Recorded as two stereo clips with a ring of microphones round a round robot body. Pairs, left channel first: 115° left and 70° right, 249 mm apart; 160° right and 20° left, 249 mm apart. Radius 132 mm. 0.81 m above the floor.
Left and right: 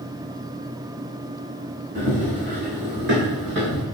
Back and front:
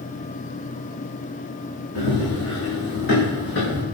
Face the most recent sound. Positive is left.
turn(degrees=-110)